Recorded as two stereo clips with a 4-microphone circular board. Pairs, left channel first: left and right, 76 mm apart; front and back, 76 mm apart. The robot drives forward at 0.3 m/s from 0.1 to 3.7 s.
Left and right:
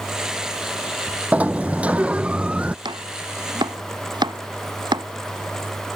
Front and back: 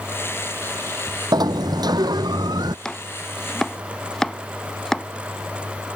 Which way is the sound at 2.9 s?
80° right.